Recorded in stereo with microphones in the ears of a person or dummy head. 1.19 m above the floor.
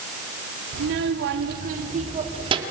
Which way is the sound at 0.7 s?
80° right.